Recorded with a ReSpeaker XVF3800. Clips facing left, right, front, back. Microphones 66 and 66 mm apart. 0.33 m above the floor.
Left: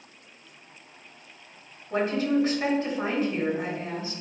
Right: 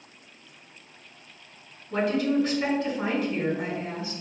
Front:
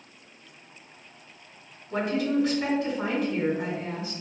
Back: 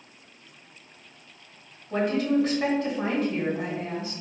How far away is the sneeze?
No sneeze in this recording.